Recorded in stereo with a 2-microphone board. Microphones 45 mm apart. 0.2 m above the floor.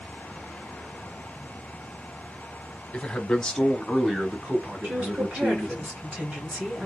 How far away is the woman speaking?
About 2.5 m.